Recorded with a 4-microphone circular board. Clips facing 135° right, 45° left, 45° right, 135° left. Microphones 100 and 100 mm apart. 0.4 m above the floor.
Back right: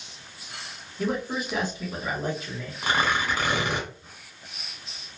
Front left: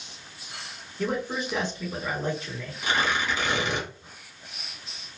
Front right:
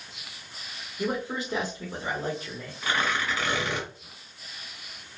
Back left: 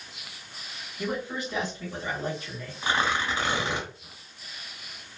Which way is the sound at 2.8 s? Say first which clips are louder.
Back right 1 dB, back left 1 dB; 160° right.